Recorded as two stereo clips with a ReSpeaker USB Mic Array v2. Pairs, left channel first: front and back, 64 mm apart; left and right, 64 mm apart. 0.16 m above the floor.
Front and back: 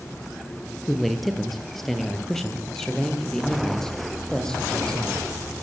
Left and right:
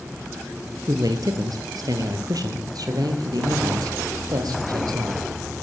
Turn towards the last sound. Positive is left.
turn(degrees=-80)